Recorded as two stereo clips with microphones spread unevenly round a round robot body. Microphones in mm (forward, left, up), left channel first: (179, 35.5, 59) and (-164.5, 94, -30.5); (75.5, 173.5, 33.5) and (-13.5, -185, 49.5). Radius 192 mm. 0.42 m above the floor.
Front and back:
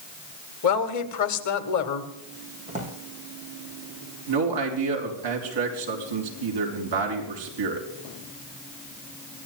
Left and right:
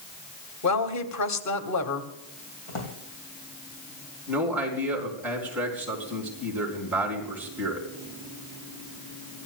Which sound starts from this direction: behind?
A man speaking, at 4.3 s.